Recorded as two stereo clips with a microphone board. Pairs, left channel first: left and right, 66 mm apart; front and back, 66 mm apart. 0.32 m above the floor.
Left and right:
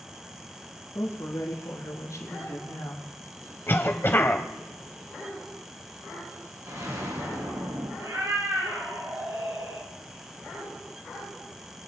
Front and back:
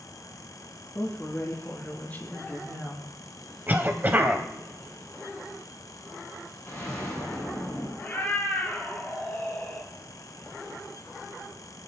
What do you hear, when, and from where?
0.9 s a woman speaking: 60° left, 6 m; by 3.1 s 75° left, 4.5 m
3.7 s a cough: 130° left, 1.8 m
6.7 s an explosion: 55° right, 8 m
8.0 s a cat meowing: 60° right, 4 m